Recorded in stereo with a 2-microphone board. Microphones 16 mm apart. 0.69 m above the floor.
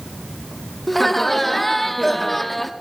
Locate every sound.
0.9 s laughter: 15° left (ahead or behind), 1.3 m